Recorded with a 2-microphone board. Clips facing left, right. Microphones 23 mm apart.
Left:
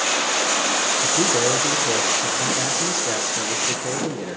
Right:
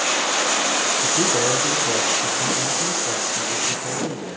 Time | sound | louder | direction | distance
1.0 | a man speaking | even | 5° left (ahead or behind) | 4.5 m